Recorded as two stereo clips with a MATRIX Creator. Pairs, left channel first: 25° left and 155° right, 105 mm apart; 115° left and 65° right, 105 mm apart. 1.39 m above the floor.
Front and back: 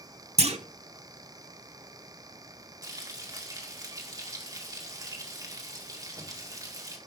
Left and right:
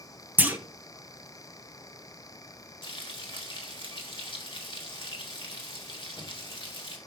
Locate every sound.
0.4 s a clunk: 140° right, 0.9 m
2.8 s frying: 150° left, 1.9 m